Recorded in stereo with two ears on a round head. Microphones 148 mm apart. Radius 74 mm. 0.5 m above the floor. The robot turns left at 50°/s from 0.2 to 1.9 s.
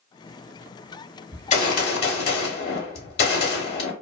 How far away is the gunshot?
About 1.0 m.